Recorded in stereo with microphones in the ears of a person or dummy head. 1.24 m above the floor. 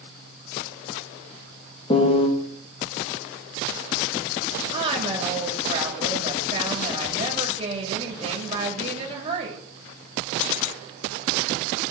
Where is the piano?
35° left (ahead or behind), 0.9 m.